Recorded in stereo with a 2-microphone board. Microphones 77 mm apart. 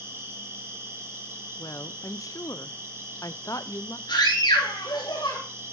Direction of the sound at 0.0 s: 35° right (ahead or behind).